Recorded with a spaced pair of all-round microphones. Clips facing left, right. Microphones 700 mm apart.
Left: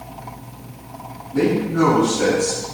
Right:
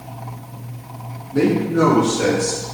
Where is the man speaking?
15° left (ahead or behind), 3.5 m; by 2.6 s 5° left (ahead or behind), 4.5 m.